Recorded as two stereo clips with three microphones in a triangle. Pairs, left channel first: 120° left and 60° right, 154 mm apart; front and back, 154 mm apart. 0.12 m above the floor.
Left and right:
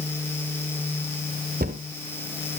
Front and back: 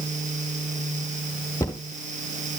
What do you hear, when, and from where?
1.6 s a cupboard door: 70° right, 1.3 m